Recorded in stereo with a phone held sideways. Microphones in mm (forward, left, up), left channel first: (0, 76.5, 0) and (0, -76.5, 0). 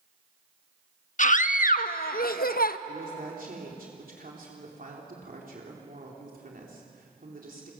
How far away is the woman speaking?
About 3.5 m.